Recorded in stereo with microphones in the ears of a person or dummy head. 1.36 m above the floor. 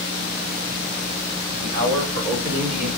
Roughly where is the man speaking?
Right.